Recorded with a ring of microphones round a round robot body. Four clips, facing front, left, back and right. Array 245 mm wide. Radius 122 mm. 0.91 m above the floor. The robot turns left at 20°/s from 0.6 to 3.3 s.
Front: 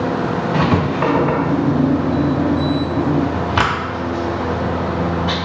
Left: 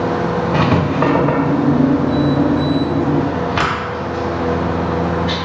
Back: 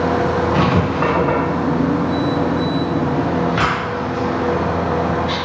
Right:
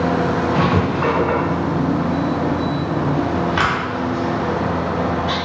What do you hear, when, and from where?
0.5 s writing: 85° left, 0.9 m; by 5.4 s 30° left, 0.9 m